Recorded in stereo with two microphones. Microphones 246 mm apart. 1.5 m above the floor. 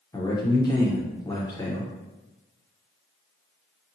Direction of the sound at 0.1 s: 15° left (ahead or behind).